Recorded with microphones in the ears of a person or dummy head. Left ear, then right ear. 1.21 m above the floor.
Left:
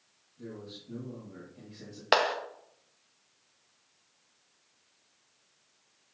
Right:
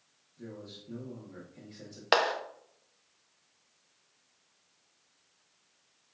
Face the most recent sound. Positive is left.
turn(degrees=0)  # may be behind; listen again after turning